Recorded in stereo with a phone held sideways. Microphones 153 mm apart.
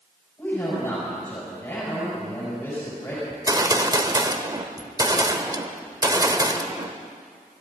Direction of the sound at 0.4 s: 15° left (ahead or behind).